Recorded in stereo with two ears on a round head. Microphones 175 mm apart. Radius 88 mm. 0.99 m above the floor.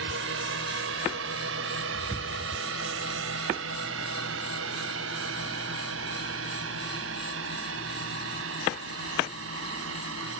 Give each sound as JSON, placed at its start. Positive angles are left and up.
{"t": 0.0, "sound": "a drone", "side_deg": -65}